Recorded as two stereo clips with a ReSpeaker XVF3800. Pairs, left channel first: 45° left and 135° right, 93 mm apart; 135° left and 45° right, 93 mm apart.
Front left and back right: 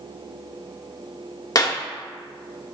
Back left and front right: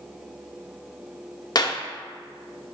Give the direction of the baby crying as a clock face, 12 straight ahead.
No baby crying in this recording.